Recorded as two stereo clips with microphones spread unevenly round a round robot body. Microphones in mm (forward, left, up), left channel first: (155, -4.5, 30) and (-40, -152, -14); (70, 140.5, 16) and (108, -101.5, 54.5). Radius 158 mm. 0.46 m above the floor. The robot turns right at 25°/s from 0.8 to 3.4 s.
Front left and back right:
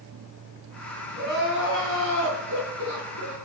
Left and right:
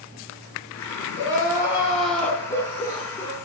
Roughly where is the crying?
Behind left.